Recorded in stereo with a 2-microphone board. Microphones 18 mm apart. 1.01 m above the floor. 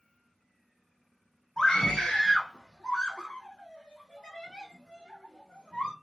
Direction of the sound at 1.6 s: 45° left (ahead or behind).